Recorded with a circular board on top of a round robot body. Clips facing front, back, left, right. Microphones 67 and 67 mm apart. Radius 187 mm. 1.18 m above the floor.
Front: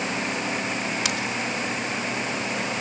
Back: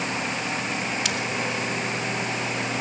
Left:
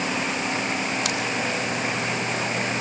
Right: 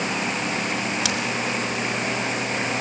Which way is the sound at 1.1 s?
85° right.